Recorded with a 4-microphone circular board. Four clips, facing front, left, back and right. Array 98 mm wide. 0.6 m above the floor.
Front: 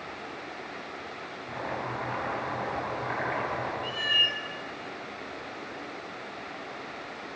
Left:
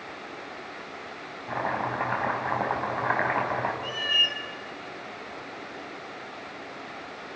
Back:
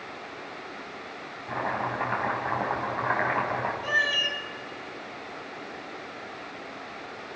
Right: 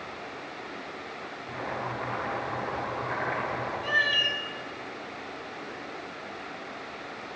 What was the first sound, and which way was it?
Chopping, 115° left.